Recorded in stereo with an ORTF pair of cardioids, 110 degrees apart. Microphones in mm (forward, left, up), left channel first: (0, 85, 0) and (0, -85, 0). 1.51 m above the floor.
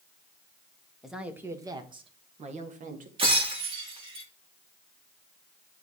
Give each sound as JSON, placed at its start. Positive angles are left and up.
{"t": 1.0, "sound": "a woman speaking", "azimuth_deg": 0, "distance_m": 1.2}
{"t": 3.2, "sound": "breaking glass", "azimuth_deg": -35, "distance_m": 2.0}